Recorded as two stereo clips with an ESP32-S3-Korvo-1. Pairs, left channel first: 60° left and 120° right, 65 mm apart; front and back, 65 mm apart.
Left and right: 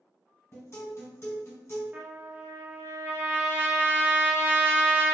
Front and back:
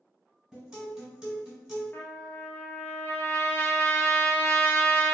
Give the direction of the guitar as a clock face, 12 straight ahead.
9 o'clock.